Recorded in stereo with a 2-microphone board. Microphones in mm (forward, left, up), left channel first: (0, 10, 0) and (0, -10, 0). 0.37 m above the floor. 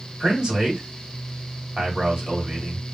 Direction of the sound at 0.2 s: 45° right (ahead or behind).